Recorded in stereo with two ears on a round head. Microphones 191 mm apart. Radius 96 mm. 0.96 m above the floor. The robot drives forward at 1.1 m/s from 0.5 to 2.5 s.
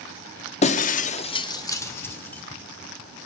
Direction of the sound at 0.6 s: 30° left (ahead or behind).